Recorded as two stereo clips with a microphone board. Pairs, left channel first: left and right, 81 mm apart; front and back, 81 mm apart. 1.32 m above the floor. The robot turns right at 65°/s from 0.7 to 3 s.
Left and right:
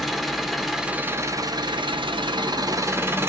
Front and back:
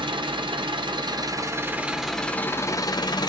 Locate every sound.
0.0 s an engine running: straight behind, 0.7 m; by 3.3 s 30° right, 0.7 m